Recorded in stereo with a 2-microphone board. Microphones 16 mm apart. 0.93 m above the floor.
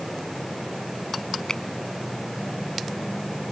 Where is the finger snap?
35° left (ahead or behind).